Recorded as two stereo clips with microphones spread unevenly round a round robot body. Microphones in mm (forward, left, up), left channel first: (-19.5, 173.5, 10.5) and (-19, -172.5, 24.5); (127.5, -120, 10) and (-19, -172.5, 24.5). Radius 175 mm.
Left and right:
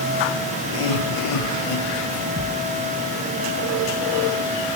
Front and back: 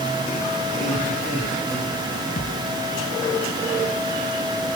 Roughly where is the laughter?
Left.